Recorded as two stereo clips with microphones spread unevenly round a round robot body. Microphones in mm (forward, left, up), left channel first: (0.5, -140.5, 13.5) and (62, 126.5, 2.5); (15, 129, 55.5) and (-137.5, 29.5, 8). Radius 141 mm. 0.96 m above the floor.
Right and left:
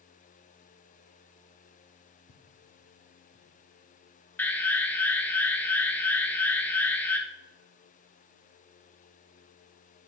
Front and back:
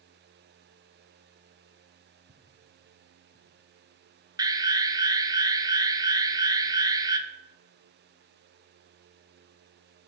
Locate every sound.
2.3 s footsteps: 90° right, 1.3 m; by 3.5 s 35° right, 1.5 m
4.4 s an alarm: 175° left, 0.8 m